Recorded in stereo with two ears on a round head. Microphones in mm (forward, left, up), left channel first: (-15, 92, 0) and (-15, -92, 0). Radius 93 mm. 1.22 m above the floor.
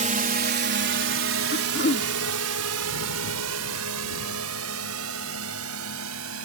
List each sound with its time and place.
0.0 s a drone: 35° right (ahead or behind); by 6.5 s 70° right (ahead or behind)
1.5 s throat clearing: 40° left (ahead or behind)